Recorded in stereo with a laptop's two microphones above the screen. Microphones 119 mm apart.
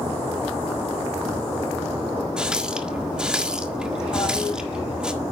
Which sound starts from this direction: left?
A toilet flushing, at 4.1 s.